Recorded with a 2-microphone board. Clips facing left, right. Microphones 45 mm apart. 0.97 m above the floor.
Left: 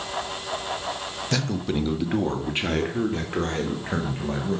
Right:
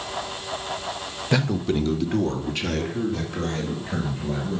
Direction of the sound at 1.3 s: 15° right (ahead or behind).